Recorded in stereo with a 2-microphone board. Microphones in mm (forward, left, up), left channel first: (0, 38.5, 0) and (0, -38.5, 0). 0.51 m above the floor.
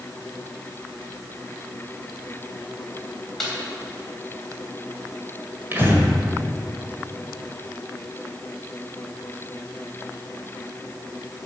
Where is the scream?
I don't hear a scream.